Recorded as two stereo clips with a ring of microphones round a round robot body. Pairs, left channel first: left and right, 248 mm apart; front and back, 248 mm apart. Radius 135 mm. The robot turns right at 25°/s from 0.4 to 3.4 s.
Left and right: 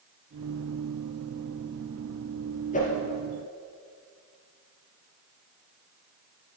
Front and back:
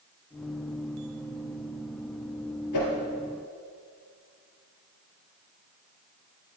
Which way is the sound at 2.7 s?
25° left.